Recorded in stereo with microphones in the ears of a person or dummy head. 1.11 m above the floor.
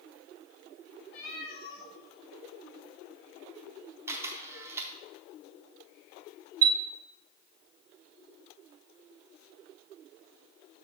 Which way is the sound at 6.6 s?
85° right.